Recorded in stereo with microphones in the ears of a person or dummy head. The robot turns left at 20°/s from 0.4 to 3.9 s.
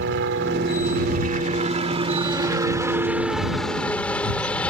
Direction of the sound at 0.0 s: 120° right.